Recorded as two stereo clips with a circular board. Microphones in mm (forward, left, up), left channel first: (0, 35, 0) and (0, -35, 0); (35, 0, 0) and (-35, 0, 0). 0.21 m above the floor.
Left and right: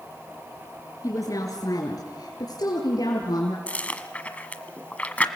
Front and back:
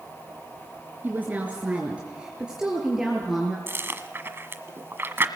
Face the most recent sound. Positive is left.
turn(degrees=150)